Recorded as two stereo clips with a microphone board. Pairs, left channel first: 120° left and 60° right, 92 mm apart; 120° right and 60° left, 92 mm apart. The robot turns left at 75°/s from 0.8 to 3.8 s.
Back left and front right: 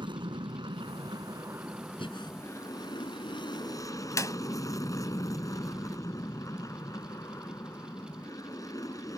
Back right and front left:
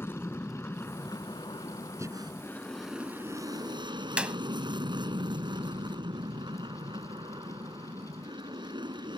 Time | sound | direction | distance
0.0 | an aircraft | 60° right | ?
2.0 | breathing | 115° left | ?
4.2 | a clap | 130° left | ?